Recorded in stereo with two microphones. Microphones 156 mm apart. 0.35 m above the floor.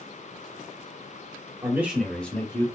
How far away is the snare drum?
I don't hear a snare drum.